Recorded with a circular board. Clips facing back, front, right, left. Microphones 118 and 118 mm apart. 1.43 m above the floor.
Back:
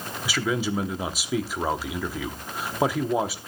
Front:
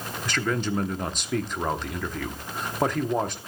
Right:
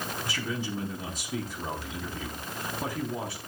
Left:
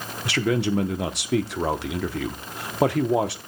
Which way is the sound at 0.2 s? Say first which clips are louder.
Back 1 dB, left 14 dB; 95° left.